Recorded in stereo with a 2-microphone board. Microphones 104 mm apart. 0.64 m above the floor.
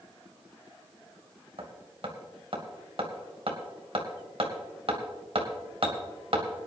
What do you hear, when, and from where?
1.6 s hammering: 60° right (ahead or behind), 2 m